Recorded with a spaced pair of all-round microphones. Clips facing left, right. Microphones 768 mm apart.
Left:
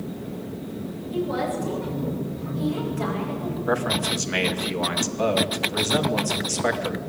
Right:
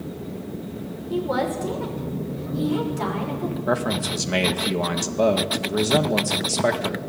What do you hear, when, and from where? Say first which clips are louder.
1.1 s a woman speaking: right 2 dB; 80° right, 6 m
3.7 s a man speaking: left 1 dB; 65° right (ahead or behind), 2 m